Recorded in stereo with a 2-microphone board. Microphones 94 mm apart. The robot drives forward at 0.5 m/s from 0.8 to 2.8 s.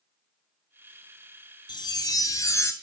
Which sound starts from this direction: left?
A chime, at 1.7 s.